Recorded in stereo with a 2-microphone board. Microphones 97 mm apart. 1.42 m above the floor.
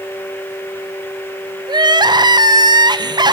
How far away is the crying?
About 0.7 m.